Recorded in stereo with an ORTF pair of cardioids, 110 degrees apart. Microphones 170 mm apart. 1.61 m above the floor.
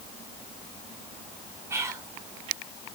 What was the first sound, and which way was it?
Whispering, 15° right.